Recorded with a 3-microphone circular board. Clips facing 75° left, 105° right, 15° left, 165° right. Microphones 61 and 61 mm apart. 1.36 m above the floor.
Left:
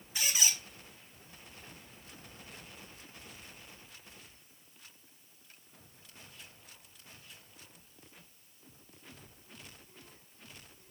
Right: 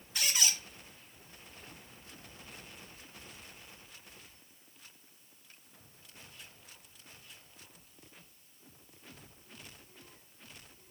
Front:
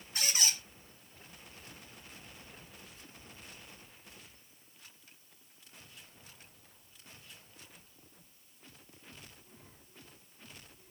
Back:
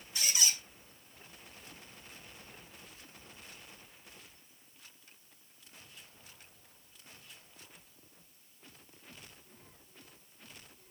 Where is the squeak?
Straight ahead, 1.3 m.